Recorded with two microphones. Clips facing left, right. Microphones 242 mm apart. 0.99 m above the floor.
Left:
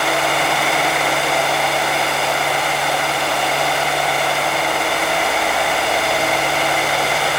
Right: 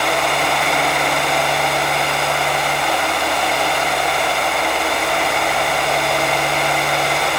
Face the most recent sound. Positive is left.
No sound to turn to.